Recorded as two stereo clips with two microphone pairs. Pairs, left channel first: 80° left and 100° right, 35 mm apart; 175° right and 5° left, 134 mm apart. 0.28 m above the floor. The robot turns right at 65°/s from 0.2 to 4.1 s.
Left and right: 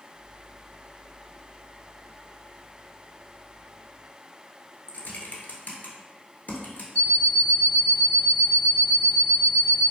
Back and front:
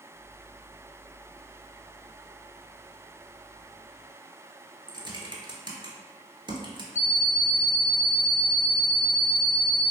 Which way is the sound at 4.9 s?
55° left.